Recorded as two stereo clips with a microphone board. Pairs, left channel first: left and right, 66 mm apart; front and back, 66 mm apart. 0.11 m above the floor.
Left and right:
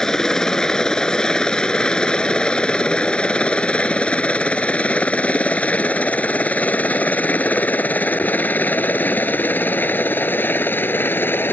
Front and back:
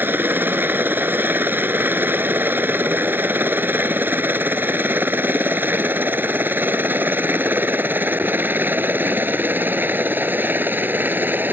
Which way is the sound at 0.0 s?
165° left.